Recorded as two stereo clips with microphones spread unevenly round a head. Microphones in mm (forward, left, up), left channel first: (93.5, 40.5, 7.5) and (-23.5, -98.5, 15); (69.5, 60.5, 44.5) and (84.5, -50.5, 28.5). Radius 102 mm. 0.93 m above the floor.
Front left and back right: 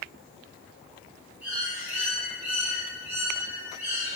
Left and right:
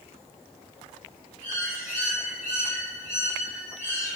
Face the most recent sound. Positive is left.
turn(degrees=150)